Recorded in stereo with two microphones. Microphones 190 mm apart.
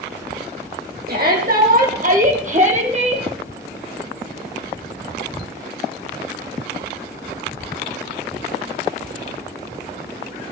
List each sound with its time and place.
1.1 s a shout: 55° right (ahead or behind), 5.5 m; by 3.3 s 35° right (ahead or behind), 4.5 m